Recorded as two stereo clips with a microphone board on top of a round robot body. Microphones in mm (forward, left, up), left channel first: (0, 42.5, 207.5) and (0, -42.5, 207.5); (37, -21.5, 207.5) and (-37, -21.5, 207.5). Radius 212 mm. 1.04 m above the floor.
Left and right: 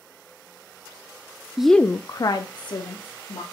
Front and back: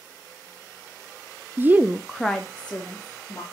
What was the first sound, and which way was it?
A woman speaking, 170° right.